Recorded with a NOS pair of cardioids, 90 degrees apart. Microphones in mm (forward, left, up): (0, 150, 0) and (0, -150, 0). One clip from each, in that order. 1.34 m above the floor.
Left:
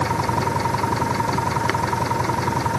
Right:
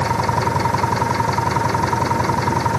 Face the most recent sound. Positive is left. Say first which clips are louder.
# right 3 dB
turn(degrees=-30)